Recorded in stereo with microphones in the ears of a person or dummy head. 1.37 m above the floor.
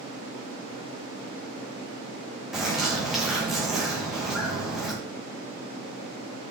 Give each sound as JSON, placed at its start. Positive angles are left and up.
{"t": 2.5, "sound": "a bird", "side_deg": 0, "distance_m": 1.8}